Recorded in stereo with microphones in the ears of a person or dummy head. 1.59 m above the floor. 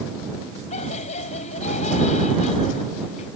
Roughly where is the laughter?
Left.